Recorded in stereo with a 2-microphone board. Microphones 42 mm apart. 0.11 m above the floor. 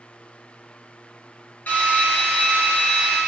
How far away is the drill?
About 1.5 m.